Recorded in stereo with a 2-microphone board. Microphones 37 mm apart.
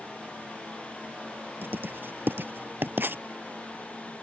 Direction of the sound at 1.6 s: 65° right (ahead or behind).